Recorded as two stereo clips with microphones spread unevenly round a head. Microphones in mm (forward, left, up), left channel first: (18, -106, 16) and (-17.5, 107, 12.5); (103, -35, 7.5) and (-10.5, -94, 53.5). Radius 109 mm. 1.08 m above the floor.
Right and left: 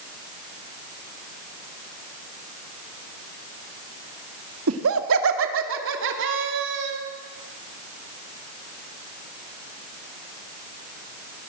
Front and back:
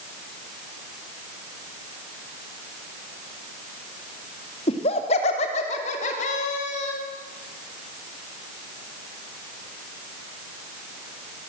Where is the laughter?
75° left, 2 m; by 7.0 s 60° left, 4 m.